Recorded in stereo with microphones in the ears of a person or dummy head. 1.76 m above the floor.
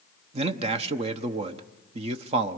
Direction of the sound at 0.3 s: 40° right (ahead or behind).